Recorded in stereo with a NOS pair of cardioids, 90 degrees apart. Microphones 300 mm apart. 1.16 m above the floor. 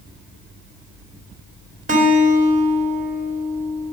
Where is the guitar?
25° right, 3 m.